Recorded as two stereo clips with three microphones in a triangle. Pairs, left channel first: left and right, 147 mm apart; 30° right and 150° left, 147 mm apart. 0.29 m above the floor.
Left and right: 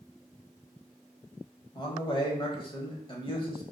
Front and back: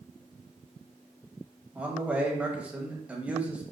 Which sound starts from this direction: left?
A man speaking, at 1.8 s.